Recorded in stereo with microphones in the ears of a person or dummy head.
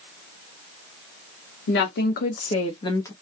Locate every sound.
1.7 s a woman speaking: 65° left (ahead or behind), 1.1 m; by 3.1 s 10° left (ahead or behind), 0.9 m